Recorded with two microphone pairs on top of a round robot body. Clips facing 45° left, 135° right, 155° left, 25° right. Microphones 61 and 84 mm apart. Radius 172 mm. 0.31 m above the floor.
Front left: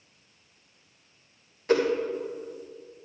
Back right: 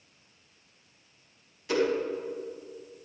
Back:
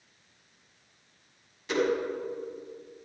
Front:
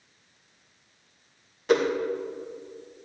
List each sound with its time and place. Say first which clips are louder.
1.7 s a whoosh: front left 3 dB, front 5 dB; straight ahead, 2 m